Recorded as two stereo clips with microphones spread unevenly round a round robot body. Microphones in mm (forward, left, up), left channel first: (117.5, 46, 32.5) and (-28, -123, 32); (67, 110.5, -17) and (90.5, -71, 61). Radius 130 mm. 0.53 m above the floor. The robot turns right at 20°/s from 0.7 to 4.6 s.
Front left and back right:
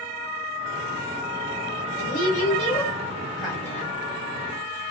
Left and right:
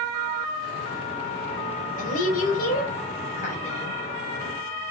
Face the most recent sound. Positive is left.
turn(degrees=145)